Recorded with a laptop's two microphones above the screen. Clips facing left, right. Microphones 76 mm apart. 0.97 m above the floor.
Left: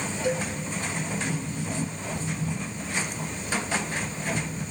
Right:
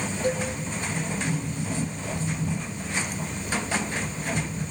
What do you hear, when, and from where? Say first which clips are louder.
0.2 s a cowbell: right 1 dB; 45° right (ahead or behind), 2 m